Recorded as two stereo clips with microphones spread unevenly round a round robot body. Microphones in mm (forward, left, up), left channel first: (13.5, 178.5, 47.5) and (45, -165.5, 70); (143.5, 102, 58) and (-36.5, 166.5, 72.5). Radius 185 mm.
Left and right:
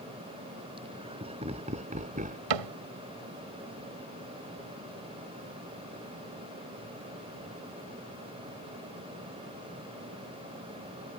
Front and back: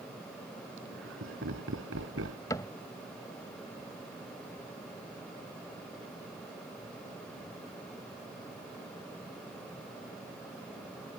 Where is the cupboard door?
100° right.